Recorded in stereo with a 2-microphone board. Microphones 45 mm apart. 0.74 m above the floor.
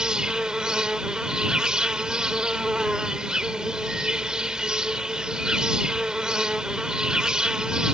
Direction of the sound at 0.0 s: 15° right (ahead or behind).